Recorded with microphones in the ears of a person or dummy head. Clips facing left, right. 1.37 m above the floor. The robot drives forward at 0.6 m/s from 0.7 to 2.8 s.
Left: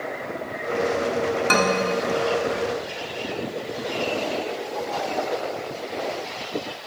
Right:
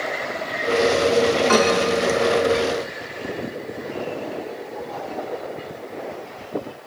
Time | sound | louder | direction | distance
1.5 | a man speaking | right 2 dB | 35° left (ahead or behind) | 4 m